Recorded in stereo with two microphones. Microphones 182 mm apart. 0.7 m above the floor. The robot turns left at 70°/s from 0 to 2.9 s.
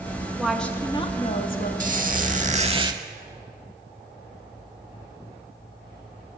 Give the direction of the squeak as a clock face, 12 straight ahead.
2 o'clock.